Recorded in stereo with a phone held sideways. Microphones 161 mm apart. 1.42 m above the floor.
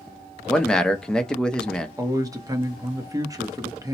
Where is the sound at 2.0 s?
20° right (ahead or behind), 0.8 m.